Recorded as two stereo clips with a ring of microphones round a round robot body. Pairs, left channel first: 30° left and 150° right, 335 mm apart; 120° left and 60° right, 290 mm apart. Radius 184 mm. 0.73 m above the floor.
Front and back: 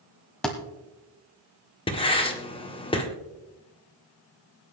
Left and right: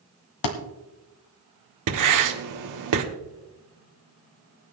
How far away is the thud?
About 1.4 m.